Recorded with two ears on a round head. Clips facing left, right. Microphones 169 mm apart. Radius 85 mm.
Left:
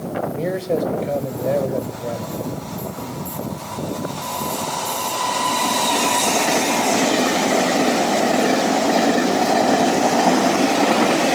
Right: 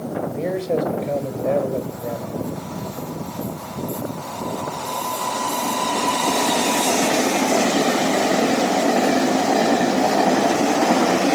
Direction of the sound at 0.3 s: Centre (ahead or behind).